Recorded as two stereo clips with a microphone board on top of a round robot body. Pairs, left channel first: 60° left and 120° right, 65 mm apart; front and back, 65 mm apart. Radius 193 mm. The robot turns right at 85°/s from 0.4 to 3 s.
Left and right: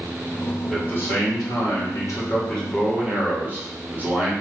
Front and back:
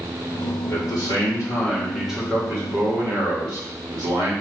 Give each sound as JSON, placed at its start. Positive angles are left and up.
{"t": 0.7, "sound": "a man speaking", "azimuth_deg": -25, "distance_m": 2.5}